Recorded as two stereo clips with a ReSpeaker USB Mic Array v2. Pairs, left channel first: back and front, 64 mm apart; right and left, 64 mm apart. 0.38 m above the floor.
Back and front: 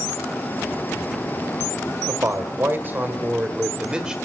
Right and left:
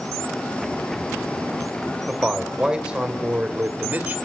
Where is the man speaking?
10° left, 1.9 m; by 4.2 s 70° left, 1.6 m.